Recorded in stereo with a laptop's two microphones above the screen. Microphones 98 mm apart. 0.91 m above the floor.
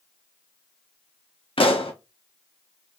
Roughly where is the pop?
Left.